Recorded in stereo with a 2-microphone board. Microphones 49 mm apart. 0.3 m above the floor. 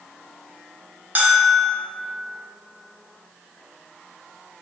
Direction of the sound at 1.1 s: 30° right (ahead or behind).